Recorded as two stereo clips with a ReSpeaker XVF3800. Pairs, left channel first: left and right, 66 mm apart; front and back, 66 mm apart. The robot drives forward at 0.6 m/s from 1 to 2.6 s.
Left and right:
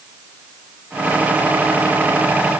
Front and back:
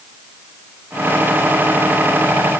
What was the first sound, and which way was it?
Only background noise.